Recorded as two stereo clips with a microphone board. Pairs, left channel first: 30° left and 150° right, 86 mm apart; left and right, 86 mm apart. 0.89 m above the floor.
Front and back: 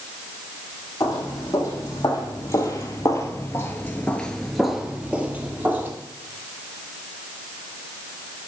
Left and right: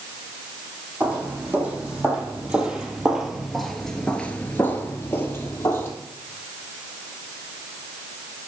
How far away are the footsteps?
About 2.5 m.